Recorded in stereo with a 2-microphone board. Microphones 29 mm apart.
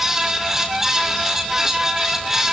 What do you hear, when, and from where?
Only background noise.